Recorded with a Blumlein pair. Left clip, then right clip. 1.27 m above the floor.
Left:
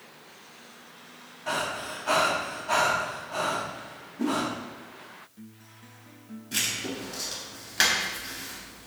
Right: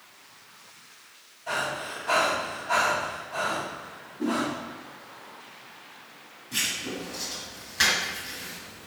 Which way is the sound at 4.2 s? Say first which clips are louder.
Even; 50° left.